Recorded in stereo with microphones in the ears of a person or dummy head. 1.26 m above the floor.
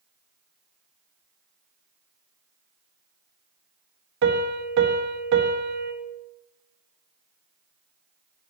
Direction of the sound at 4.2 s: 70° right (ahead or behind).